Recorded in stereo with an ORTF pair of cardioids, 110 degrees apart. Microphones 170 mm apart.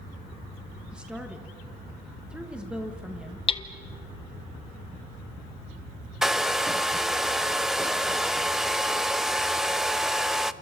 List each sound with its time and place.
0.9 s a woman speaking: 5° right, 1.7 m
3.5 s hammering: 30° left, 1.4 m
6.2 s a hair dryer: 5° right, 0.6 m